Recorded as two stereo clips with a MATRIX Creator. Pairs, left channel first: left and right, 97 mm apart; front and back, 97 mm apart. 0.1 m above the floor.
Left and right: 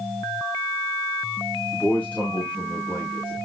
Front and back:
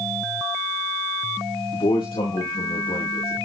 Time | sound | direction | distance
1.7 | a man speaking | 15° left | 6 m